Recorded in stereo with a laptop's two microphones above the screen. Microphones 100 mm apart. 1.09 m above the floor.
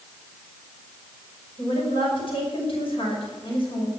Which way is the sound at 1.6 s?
55° left (ahead or behind).